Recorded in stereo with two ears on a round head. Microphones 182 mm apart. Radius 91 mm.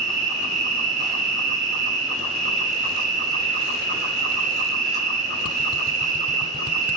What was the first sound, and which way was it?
An insect, 35° right (ahead or behind).